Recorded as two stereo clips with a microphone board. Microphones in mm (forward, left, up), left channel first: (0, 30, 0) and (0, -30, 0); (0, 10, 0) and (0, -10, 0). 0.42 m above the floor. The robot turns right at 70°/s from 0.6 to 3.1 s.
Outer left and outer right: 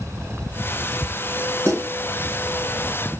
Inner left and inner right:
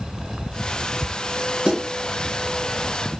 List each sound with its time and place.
1.6 s a snare drum: 50° right (ahead or behind), 1.4 m; by 1.9 s 65° right (ahead or behind), 1.4 m